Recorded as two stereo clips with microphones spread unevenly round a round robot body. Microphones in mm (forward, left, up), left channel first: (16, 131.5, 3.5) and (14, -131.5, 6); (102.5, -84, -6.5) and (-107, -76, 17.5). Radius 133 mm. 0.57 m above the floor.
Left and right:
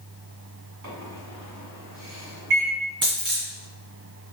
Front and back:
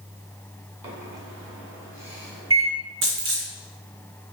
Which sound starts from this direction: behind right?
A microwave, at 0.8 s.